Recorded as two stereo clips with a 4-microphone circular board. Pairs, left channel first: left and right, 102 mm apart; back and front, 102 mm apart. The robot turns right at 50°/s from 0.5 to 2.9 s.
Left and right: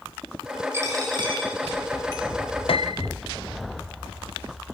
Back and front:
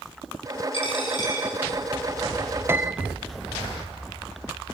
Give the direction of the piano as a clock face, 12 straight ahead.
10 o'clock.